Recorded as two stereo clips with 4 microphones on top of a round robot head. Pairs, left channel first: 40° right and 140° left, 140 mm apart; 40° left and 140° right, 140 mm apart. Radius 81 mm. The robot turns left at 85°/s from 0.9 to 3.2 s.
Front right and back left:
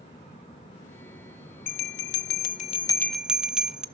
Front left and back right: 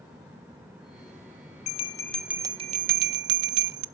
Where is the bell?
5° right, 0.5 m; by 3.9 s 135° right, 0.5 m.